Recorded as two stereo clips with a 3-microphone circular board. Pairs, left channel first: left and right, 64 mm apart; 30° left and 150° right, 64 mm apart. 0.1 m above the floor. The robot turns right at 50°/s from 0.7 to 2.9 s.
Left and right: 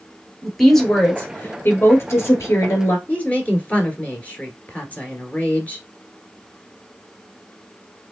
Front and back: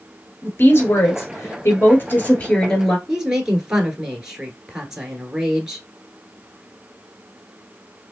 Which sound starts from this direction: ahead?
A woman speaking, at 0.4 s.